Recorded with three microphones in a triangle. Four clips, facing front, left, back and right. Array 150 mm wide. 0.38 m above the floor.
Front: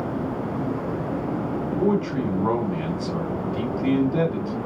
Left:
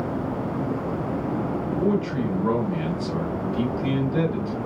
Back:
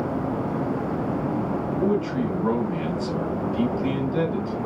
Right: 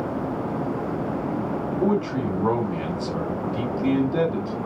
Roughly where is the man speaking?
Ahead right.